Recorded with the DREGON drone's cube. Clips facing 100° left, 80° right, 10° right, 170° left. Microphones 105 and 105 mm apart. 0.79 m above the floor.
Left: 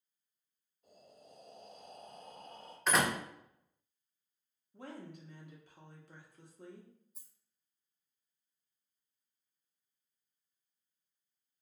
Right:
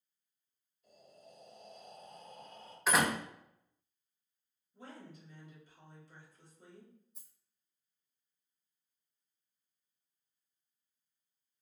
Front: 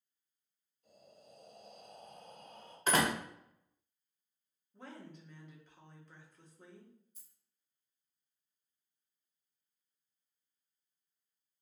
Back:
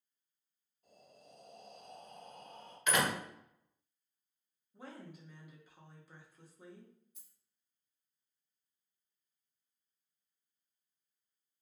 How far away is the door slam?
About 0.6 m.